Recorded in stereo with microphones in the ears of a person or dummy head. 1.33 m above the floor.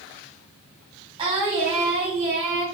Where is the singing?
20° right (ahead or behind), 1.4 m.